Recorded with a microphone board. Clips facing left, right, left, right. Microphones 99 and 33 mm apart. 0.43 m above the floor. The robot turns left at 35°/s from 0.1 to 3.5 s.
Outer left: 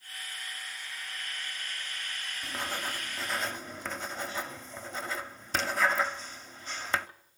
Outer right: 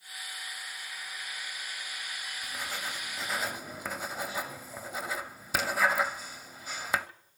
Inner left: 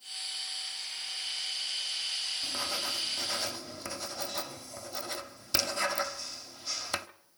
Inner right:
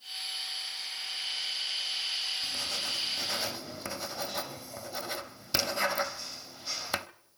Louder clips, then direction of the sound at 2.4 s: Outer left 3 dB, even; 30° left (ahead or behind).